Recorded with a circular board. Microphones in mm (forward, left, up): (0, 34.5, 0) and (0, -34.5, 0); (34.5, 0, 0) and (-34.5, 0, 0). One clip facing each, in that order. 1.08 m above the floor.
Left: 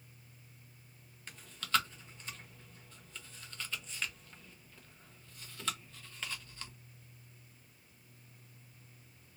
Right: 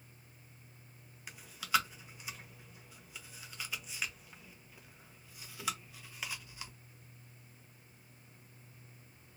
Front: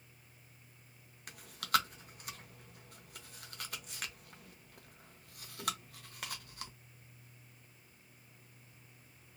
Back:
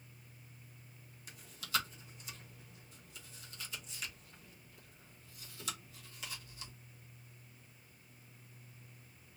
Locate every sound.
1.3 s chewing: 10° right, 0.6 m